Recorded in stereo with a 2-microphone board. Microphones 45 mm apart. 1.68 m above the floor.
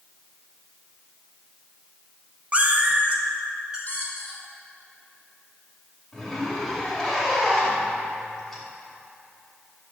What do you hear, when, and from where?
2.5 s a cat meowing: 25° right (ahead or behind), 1.0 m
3.9 s a squeak: 35° left (ahead or behind), 2.5 m
6.1 s a zipper: 10° left (ahead or behind), 2.5 m